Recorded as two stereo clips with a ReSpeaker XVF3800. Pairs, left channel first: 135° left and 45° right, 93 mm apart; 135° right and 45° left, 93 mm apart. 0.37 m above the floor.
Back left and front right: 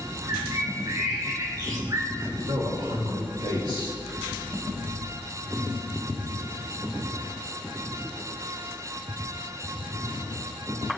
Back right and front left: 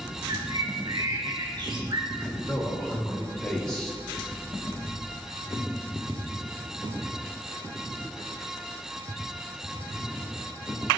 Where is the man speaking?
55° right, 5 m.